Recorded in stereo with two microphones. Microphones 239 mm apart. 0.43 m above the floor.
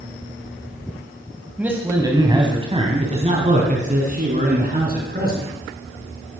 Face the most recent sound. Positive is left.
turn(degrees=-40)  # may be behind; listen again after turning